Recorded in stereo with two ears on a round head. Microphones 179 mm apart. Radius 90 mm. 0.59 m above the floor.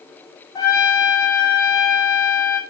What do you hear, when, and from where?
0.6 s a trumpet: 20° left (ahead or behind), 1.0 m